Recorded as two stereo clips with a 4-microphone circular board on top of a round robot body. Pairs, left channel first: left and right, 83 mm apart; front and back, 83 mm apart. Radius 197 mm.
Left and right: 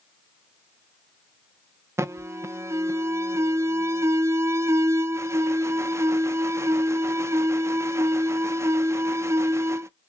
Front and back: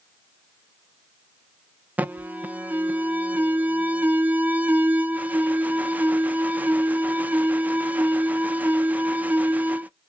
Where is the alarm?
120° right, 0.6 m.